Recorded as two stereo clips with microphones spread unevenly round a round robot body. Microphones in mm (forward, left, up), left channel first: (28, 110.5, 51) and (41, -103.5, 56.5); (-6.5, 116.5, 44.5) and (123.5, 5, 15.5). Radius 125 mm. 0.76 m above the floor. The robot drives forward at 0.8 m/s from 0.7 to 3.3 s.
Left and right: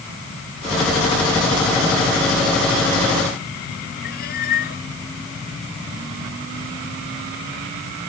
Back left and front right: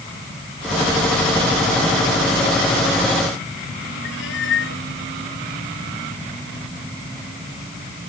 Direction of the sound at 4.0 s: 145° left.